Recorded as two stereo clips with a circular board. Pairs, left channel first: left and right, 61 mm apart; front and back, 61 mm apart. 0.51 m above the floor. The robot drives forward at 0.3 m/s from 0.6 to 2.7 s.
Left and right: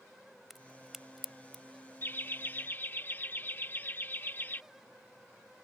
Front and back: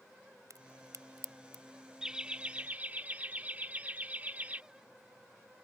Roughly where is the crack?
Behind.